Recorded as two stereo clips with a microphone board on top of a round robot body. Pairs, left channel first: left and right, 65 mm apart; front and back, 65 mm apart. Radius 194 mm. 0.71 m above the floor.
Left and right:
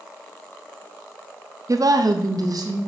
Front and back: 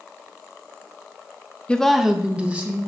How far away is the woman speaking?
About 0.7 m.